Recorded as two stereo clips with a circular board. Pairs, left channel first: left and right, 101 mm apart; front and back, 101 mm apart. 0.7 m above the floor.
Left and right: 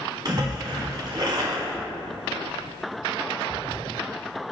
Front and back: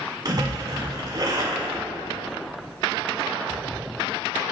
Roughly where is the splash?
Behind right.